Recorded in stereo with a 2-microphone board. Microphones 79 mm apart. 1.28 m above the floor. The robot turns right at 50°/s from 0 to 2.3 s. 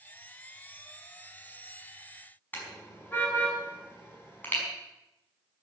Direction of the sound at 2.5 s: 25° left (ahead or behind).